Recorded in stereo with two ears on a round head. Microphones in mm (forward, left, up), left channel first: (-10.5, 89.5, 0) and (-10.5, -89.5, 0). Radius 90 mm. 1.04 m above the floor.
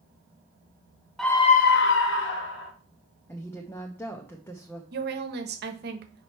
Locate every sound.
1.2 s a scream: centre (ahead or behind), 0.7 m; by 2.7 s 60° left (ahead or behind), 1.8 m
3.3 s a woman speaking: 10° left (ahead or behind), 0.8 m
4.9 s a woman speaking: 55° right (ahead or behind), 1.2 m